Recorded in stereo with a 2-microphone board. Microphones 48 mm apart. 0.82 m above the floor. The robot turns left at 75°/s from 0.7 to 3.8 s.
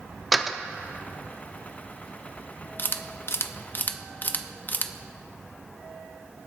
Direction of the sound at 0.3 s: Centre (ahead or behind).